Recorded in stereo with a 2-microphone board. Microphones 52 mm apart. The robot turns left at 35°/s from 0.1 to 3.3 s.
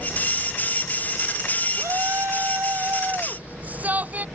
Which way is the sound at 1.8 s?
95° right.